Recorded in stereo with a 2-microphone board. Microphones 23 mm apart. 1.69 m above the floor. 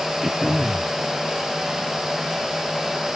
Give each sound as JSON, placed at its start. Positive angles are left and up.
{"t": 0.2, "sound": "throat clearing", "side_deg": -15}